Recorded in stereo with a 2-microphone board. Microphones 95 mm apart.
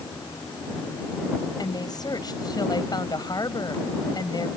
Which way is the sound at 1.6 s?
45° left (ahead or behind).